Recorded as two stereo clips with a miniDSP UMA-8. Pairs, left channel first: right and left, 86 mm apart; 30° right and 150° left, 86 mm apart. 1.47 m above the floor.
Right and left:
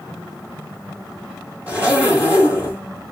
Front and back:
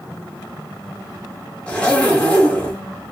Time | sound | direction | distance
1.7 | a zipper | 35° left | 1.4 m